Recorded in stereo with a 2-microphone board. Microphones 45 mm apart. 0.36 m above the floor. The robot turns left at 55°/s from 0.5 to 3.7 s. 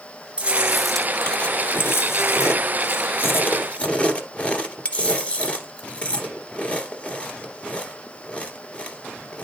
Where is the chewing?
155° right, 1.8 m; by 9.4 s 30° left, 1.8 m.